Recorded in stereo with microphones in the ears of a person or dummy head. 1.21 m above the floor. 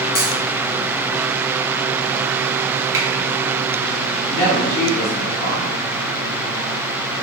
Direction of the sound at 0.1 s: 40° left (ahead or behind).